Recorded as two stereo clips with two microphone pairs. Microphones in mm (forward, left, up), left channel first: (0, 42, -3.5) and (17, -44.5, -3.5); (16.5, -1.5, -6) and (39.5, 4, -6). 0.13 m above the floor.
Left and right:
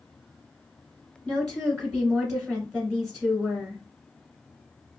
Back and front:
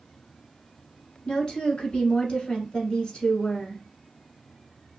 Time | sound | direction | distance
1.2 | a woman speaking | 165° right | 1.4 m